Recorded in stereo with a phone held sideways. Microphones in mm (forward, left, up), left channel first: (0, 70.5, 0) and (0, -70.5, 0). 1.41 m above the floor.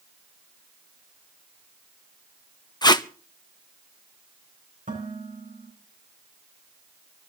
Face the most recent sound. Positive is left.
turn(degrees=-80)